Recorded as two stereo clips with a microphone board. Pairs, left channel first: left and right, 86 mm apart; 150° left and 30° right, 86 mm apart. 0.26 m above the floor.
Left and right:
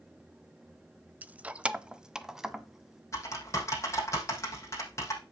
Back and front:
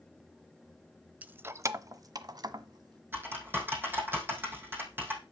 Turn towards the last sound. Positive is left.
turn(degrees=35)